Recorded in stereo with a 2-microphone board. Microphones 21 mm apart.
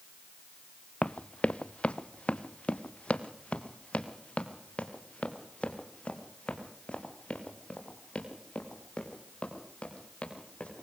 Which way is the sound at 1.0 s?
80° left.